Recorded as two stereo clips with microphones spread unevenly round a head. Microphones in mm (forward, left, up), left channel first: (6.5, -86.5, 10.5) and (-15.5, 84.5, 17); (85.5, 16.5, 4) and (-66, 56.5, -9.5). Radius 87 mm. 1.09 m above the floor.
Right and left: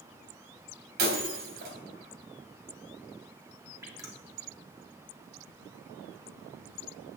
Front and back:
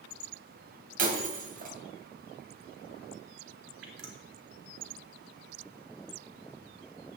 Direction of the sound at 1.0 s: 130° left.